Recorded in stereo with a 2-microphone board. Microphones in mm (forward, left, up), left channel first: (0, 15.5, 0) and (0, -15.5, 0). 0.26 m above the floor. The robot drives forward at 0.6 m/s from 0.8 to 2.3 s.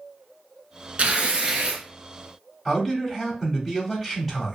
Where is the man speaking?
10° right (ahead or behind), 1.0 m.